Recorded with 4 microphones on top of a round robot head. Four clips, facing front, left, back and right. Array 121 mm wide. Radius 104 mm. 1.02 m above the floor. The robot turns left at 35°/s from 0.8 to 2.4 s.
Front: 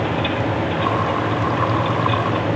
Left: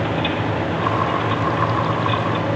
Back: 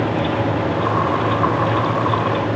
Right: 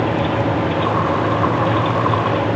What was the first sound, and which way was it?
Only background noise.